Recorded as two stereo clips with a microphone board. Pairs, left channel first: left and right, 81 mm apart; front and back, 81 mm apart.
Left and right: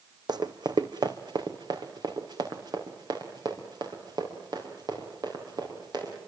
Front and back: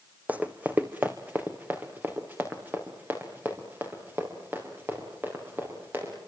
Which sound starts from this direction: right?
Running footsteps, at 0.3 s.